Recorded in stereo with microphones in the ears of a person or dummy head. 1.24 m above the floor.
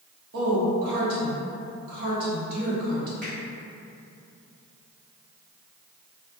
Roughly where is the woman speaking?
Right.